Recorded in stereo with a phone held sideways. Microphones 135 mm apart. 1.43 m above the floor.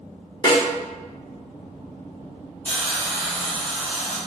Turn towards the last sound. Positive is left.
turn(degrees=10)  # may be behind; listen again after turning